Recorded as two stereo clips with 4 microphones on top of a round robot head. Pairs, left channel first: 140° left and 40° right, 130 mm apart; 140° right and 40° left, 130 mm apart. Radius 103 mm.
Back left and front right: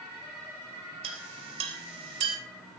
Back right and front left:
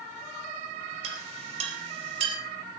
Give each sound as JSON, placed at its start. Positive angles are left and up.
{"t": 1.0, "sound": "a clink", "azimuth_deg": 5, "distance_m": 3.5}